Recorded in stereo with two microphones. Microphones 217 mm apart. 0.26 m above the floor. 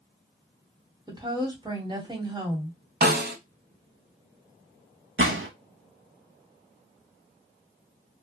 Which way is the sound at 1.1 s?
20° right (ahead or behind).